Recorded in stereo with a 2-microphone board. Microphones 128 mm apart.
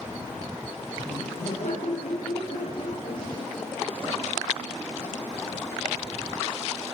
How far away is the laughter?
About 8 m.